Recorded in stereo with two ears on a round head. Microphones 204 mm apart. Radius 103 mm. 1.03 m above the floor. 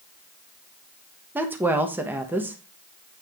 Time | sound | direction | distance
1.4 | a woman speaking | 10° right (ahead or behind) | 1.2 m